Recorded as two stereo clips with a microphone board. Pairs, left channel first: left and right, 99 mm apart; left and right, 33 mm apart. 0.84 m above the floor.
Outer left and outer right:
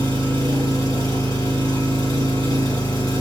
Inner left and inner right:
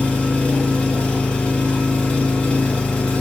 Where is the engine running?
35° left (ahead or behind), 1.7 m.